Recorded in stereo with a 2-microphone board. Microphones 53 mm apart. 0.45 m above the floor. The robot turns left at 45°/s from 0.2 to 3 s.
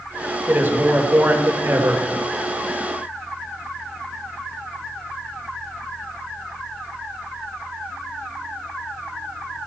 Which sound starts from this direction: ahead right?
A man speaking, at 0.5 s.